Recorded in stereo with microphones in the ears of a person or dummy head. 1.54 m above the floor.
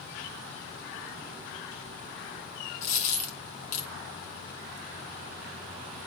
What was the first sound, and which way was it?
A dropped coin, 45° left (ahead or behind).